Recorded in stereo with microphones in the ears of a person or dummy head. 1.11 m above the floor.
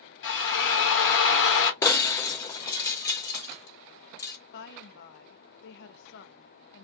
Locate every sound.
0.2 s a drill: 65° left (ahead or behind), 1.0 m
1.8 s breaking glass: 20° left (ahead or behind), 0.5 m
4.5 s a woman speaking: 70° left (ahead or behind), 0.6 m